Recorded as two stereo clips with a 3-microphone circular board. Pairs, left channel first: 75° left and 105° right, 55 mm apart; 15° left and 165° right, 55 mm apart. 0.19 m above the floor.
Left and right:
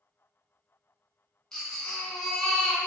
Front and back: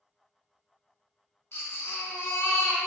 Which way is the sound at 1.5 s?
Straight ahead.